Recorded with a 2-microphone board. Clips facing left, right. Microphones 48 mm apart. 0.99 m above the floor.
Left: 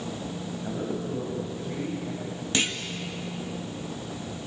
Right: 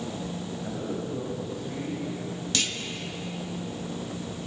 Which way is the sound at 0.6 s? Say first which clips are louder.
Left 2 dB; centre (ahead or behind).